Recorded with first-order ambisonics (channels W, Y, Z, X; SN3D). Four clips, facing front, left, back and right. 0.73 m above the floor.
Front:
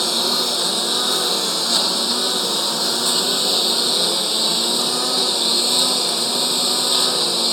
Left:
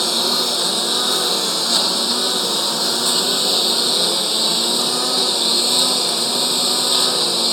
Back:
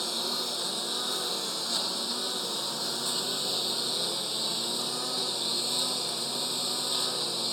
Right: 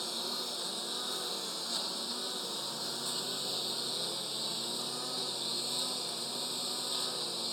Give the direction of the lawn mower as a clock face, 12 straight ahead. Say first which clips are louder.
Left 19 dB, front 12 dB; 10 o'clock.